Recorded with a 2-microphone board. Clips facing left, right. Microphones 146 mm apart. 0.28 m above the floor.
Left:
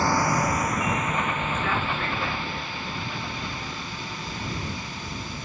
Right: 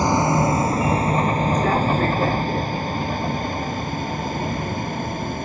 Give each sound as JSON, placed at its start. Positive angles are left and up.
{"t": 0.0, "sound": "a vehicle", "side_deg": -20}